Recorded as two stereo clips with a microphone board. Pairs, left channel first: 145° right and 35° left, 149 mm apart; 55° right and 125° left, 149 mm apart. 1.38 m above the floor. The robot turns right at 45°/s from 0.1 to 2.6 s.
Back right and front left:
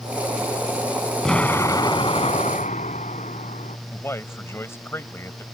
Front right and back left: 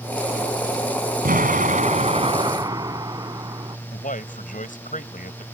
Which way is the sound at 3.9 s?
75° right.